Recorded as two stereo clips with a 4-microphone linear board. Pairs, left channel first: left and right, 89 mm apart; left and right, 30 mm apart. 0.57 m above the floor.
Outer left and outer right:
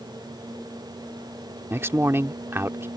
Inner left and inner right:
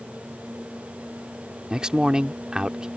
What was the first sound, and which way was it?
A man speaking, 30° right (ahead or behind).